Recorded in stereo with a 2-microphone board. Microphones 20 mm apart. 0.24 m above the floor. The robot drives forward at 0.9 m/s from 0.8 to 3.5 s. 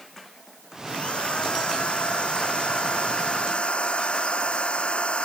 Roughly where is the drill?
Left.